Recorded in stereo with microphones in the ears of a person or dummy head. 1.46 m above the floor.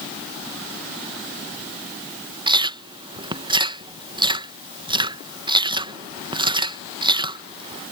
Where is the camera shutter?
No camera shutter in this recording.